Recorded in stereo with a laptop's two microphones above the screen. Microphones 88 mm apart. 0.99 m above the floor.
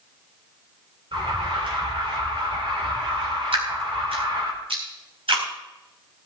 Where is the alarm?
70° right (ahead or behind), 3.5 m.